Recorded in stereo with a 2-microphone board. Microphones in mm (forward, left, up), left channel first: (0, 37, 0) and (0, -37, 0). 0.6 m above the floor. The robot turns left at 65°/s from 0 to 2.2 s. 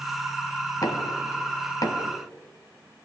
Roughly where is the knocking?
Left.